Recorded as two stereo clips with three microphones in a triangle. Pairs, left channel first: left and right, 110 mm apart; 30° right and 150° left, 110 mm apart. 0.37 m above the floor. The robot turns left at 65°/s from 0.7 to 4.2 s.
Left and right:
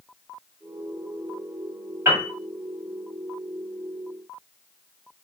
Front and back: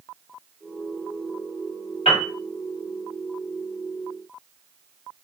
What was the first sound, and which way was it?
A piano, 25° right.